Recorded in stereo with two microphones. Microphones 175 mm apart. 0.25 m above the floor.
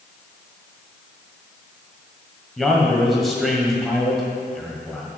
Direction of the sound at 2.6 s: Centre (ahead or behind).